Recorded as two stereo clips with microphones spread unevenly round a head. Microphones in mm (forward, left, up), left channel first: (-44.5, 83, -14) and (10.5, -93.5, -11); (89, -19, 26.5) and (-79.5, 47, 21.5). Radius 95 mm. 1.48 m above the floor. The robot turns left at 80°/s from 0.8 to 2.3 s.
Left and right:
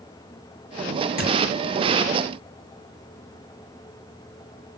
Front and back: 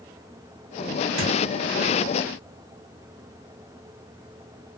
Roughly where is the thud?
Behind left.